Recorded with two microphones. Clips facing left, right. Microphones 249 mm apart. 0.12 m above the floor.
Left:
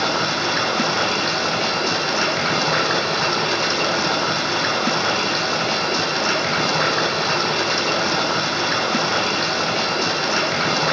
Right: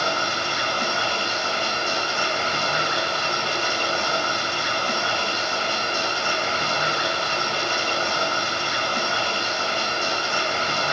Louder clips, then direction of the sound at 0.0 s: Left 5 dB; 80° left.